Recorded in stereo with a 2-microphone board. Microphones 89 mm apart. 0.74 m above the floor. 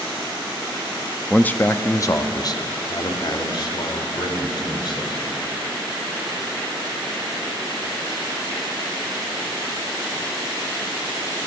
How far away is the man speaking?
About 0.5 m.